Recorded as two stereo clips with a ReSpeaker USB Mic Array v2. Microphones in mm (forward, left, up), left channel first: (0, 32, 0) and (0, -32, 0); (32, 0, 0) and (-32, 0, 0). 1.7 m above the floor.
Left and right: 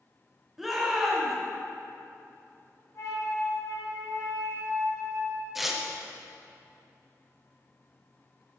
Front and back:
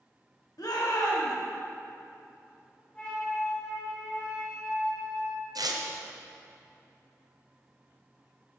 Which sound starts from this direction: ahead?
A shout, at 0.6 s.